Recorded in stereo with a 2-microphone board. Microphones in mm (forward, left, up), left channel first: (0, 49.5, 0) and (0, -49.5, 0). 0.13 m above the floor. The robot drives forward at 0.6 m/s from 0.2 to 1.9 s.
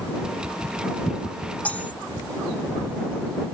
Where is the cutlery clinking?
15° left (ahead or behind).